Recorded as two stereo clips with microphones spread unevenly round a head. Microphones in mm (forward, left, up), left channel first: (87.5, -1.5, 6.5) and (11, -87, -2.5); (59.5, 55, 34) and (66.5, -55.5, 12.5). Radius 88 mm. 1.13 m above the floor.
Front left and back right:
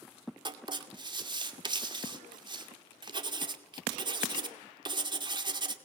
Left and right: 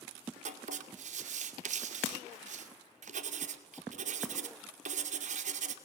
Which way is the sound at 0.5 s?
85° right.